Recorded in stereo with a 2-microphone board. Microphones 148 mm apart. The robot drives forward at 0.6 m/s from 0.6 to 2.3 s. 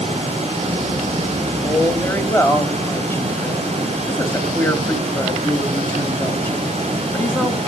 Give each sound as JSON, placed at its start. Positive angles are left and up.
{"t": 1.6, "sound": "a woman speaking", "side_deg": 20, "distance_m": 1.8}